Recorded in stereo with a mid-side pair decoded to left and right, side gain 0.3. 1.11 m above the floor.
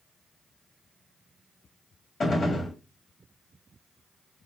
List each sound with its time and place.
2.2 s a gunshot: 60° left, 1.1 m